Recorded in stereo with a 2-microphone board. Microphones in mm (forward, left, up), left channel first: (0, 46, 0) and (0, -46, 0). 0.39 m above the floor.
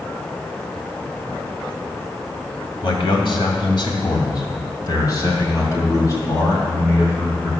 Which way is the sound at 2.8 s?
65° left (ahead or behind).